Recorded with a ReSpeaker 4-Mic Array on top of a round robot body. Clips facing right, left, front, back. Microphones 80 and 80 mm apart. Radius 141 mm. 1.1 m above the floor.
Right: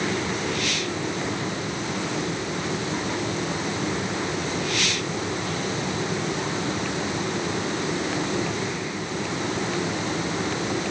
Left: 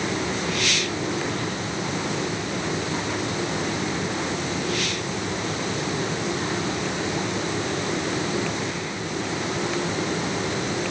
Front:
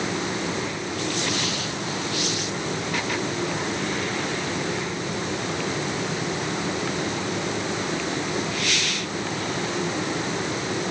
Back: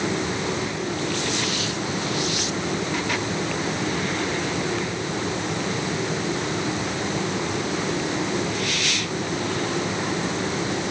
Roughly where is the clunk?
I don't hear a clunk.